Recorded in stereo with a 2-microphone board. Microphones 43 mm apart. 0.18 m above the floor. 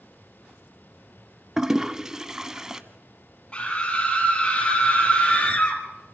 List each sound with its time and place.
1.6 s a toilet flushing: 15° right (ahead or behind), 0.8 m
3.5 s a scream: 25° left (ahead or behind), 6 m